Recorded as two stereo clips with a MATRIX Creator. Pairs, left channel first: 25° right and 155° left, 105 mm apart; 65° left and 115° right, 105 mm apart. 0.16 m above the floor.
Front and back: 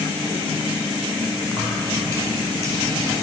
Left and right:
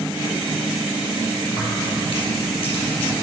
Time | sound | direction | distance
1.5 | keys jangling | 40° left | 3.5 m